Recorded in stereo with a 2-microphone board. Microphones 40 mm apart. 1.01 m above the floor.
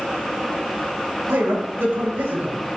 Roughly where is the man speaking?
Right.